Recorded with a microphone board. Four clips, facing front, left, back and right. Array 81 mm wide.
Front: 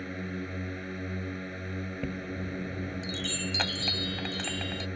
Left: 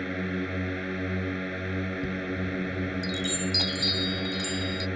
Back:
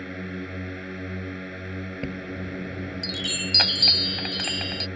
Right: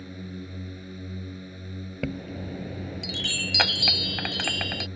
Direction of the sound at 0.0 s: 105° left.